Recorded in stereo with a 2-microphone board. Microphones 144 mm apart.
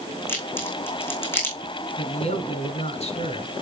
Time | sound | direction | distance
0.3 | a crack | 15° left (ahead or behind) | 3.5 m
2.0 | a man speaking | 50° left (ahead or behind) | 1.5 m